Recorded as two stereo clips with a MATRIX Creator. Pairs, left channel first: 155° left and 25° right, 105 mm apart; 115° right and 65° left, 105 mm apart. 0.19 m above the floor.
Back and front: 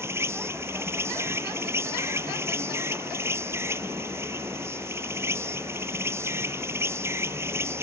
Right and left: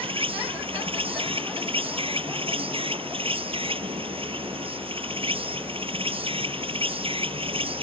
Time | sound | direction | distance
0.0 | an insect | 40° left | ?